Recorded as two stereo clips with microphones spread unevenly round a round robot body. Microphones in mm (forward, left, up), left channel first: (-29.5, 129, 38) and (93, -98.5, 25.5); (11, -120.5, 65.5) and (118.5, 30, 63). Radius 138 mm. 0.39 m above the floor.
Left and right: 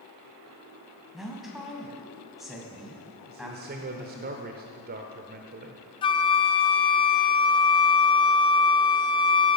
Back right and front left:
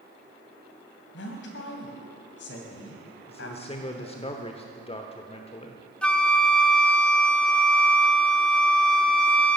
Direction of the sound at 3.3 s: 85° right.